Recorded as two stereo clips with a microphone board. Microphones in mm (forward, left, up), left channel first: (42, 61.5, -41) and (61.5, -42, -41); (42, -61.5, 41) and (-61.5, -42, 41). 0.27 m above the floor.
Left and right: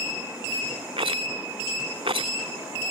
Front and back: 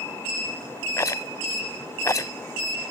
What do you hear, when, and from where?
1.0 s a rattle: 70° right